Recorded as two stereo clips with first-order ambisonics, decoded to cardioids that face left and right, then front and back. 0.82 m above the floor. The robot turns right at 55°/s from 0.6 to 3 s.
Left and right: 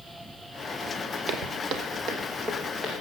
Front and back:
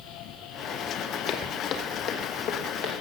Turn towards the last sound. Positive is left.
turn(degrees=0)